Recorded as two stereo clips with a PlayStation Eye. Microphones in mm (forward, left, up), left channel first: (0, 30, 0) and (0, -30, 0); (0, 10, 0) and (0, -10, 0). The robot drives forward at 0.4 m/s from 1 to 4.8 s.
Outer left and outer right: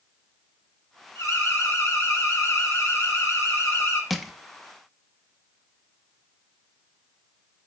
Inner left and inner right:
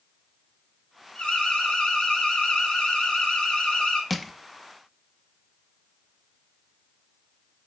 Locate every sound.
1.1 s an alarm: 65° left (ahead or behind), 4.5 m; by 4.0 s 55° left (ahead or behind), 5 m
4.1 s crushing: centre (ahead or behind), 0.6 m